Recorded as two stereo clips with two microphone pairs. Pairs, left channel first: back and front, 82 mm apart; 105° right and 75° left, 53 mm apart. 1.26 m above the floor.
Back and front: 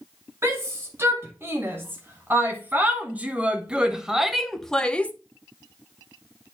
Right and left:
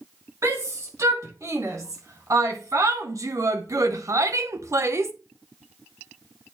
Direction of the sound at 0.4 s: 55° left.